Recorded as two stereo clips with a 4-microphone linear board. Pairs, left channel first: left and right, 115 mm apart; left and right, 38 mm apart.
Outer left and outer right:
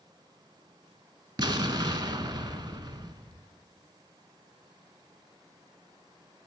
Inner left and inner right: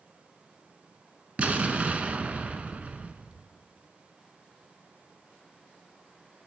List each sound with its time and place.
1.4 s an explosion: 40° right (ahead or behind), 0.6 m